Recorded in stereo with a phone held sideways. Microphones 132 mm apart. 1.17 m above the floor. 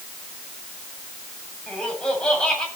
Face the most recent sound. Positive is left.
turn(degrees=5)  # may be behind; listen again after turning